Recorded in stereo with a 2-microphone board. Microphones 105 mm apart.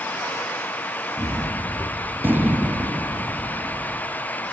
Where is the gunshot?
20° right (ahead or behind), 1.3 m.